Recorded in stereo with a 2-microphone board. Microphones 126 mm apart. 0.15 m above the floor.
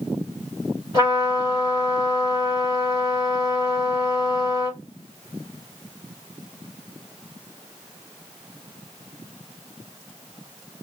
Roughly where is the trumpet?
Right.